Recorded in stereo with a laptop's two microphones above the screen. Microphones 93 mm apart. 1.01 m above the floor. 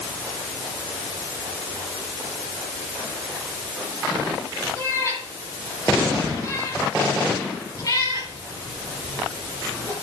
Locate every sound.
4.8 s a cat meowing: 30° left (ahead or behind), 9.5 m; by 9.9 s 45° left (ahead or behind), 8.5 m